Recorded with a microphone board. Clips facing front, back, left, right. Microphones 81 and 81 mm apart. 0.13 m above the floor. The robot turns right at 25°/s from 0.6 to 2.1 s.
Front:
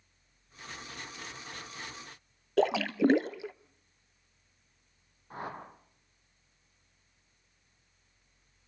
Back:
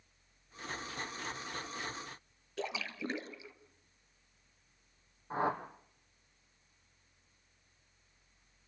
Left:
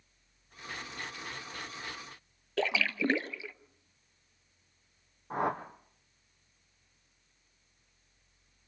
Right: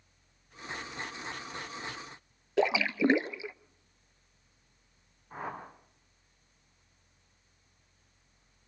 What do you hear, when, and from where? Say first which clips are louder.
2.6 s a splash: front 14 dB, right 4 dB; 20° right, 0.6 m
5.3 s a whoosh: back 7 dB, left 8 dB; 115° left, 3.5 m